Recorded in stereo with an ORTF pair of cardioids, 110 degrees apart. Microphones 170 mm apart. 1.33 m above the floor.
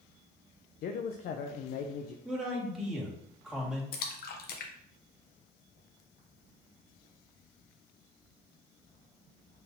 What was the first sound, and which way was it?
A man speaking, 65° left.